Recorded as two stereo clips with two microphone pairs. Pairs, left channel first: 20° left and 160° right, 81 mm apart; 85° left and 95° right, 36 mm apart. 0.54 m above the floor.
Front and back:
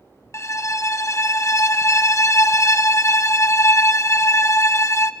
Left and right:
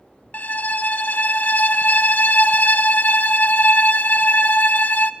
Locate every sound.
0.3 s a violin: 70° left, 0.6 m